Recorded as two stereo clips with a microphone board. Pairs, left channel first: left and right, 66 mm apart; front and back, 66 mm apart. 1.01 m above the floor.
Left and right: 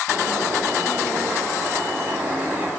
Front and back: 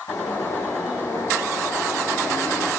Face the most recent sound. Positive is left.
turn(degrees=-25)